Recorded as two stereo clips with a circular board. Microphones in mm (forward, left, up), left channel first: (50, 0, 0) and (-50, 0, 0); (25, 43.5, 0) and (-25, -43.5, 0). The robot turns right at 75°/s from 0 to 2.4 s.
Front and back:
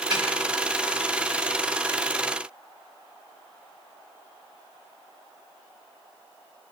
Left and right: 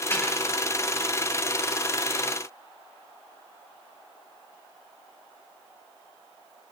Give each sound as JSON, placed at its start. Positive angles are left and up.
{"t": 0.1, "sound": "a snare drum", "azimuth_deg": 130, "distance_m": 8.5}